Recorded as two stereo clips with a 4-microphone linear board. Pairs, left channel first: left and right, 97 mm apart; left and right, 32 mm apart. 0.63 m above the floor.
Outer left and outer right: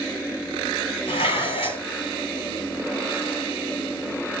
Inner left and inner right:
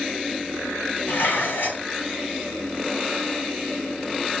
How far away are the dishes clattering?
About 2 m.